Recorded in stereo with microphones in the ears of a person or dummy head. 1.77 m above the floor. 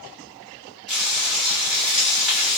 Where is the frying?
Centre (ahead or behind), 1.1 m.